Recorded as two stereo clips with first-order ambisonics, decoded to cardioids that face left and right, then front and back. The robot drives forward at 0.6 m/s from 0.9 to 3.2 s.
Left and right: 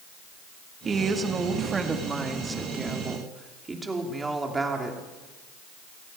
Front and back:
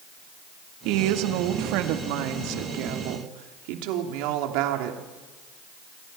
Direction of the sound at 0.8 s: 160° right.